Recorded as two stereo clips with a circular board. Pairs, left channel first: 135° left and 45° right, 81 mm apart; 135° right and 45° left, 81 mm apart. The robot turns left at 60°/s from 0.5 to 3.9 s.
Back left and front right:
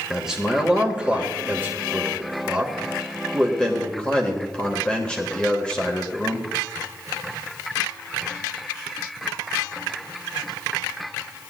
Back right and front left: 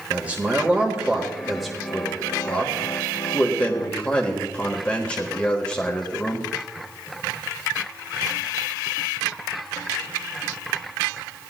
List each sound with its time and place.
0.1 s a man speaking: 25° left, 1.5 m; by 6.5 s 175° right, 1.5 m